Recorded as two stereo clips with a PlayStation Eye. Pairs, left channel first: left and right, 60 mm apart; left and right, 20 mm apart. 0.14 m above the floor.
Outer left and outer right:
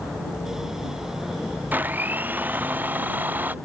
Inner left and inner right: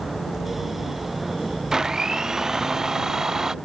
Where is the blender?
25° right (ahead or behind).